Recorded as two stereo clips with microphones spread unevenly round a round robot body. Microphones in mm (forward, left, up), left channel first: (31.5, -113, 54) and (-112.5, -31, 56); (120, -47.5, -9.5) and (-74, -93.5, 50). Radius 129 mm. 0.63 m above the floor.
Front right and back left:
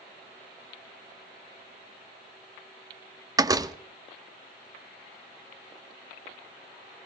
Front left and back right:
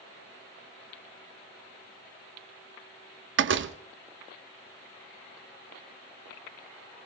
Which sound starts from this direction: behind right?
A door slam, at 3.4 s.